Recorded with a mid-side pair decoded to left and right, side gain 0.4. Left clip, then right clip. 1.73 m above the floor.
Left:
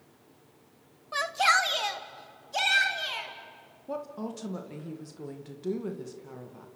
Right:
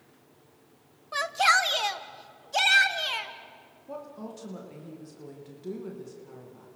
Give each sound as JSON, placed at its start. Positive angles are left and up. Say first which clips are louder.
{"t": 1.1, "sound": "a shout", "louder": "right 1 dB", "azimuth_deg": 0, "distance_m": 1.1}
{"t": 3.9, "sound": "a woman speaking", "louder": "left 4 dB", "azimuth_deg": 45, "distance_m": 2.5}